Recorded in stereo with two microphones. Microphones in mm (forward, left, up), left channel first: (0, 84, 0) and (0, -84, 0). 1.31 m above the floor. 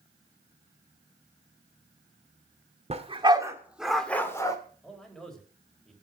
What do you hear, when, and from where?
2.9 s a dog barking: 40° right (ahead or behind), 1.6 m; by 4.6 s 20° left (ahead or behind), 1.9 m
4.8 s a man speaking: centre (ahead or behind), 3.5 m